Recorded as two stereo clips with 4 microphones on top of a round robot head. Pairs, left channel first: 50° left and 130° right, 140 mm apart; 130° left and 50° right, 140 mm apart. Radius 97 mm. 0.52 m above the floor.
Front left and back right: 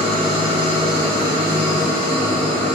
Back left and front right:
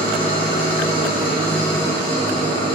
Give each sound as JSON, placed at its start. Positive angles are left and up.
{"t": 0.0, "sound": "an engine running", "azimuth_deg": 180, "distance_m": 4.5}